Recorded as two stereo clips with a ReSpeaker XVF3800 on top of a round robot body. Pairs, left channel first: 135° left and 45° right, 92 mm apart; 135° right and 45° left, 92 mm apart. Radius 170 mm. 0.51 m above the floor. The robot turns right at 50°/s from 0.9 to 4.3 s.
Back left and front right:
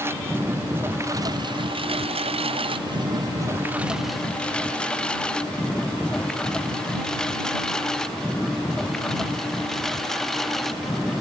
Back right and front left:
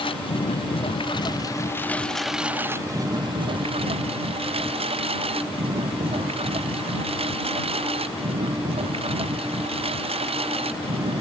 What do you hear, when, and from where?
0.0 s a lawn mower: 110° right; by 11.2 s 45° left